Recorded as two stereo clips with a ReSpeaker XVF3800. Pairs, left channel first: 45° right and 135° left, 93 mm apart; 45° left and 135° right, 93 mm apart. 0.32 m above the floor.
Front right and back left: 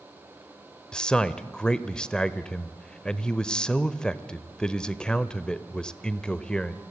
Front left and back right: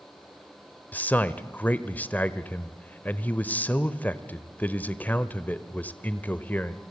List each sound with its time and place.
0.9 s a man speaking: 20° left, 0.9 m